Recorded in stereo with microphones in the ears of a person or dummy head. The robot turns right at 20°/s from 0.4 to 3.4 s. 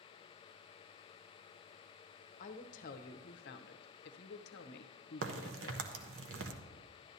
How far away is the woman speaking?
About 0.7 m.